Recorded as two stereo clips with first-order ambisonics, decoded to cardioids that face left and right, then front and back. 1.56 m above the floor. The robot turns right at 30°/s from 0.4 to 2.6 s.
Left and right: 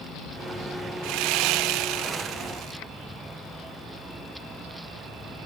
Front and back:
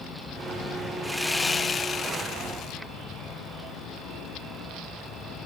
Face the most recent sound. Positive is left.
turn(degrees=-45)